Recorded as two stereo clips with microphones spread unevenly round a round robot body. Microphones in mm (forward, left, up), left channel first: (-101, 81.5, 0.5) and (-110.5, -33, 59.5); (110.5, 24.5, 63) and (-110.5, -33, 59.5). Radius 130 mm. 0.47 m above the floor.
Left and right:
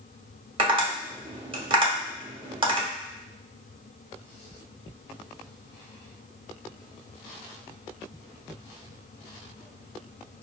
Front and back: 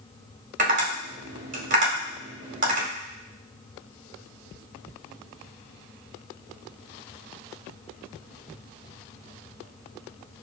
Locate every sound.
0.6 s tapping: 155° right, 2.0 m